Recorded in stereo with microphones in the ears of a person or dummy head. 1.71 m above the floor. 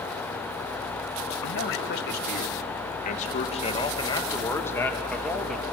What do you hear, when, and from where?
1.4 s a man speaking: 65° left (ahead or behind), 2.5 m; by 5.6 s centre (ahead or behind), 2.5 m